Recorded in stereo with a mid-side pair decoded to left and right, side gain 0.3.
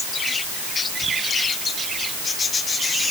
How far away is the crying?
No crying in this recording.